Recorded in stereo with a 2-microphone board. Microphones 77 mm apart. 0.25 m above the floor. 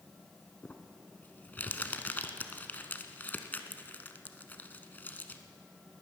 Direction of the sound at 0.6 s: 25° left (ahead or behind).